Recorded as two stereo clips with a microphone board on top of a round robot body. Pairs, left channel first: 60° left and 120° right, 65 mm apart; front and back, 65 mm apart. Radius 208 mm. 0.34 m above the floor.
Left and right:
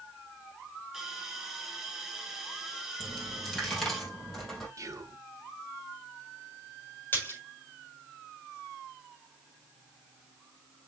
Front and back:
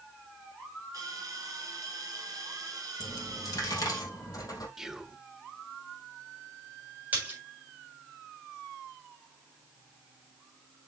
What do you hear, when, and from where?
0.9 s a hiss: 155° left, 5 m
3.0 s a dropped coin: 25° right, 3 m
4.8 s whispering: 95° right, 1.7 m
7.1 s a splash: 120° left, 6 m